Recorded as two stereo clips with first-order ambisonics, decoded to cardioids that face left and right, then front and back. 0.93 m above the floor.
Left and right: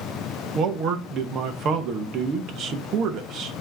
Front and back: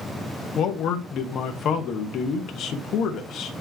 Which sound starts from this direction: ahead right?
A man speaking, at 0.6 s.